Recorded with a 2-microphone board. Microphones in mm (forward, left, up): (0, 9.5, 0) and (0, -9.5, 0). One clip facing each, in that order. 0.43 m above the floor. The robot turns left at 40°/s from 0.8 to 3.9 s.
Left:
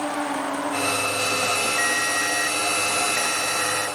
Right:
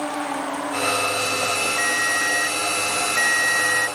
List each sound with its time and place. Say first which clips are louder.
1.8 s a ringtone: right 1 dB; 5° right; by 4.0 s 90° right